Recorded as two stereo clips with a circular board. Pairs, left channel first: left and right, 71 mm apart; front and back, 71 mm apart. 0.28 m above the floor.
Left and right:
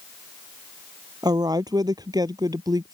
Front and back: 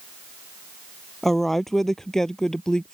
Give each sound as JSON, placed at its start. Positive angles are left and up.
{"t": 1.2, "sound": "a woman speaking", "azimuth_deg": -85}